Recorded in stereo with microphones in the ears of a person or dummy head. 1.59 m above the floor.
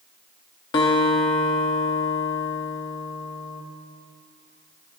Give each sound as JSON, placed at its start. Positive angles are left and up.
{"t": 0.7, "sound": "a guitar", "side_deg": 30, "distance_m": 1.2}